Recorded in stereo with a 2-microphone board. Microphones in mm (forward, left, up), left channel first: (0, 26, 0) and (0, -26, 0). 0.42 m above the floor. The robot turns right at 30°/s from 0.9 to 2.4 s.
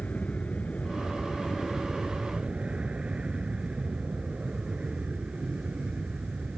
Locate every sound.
0.0 s an aircraft: 155° left; by 6.6 s 160° right